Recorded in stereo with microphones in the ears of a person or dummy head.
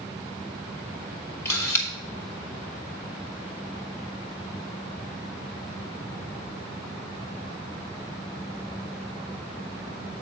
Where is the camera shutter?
15° left (ahead or behind), 1.2 m.